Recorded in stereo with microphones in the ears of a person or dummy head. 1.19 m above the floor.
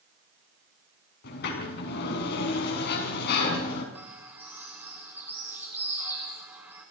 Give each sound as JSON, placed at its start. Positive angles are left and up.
{"t": 1.2, "sound": "a sliding door", "side_deg": 75, "distance_m": 5.5}
{"t": 4.0, "sound": "a bird", "side_deg": -15, "distance_m": 3.5}